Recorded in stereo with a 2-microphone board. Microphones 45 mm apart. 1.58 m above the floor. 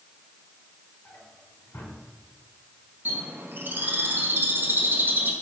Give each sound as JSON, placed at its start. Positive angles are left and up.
{"t": 1.1, "sound": "a drawer", "side_deg": 75, "distance_m": 4.0}
{"t": 3.0, "sound": "a bird", "side_deg": -45, "distance_m": 2.0}